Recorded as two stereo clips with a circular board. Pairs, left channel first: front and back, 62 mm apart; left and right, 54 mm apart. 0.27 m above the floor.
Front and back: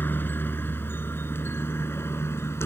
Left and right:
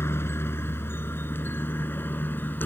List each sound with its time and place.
0.0 s a helicopter: 55° left; by 2.7 s 40° left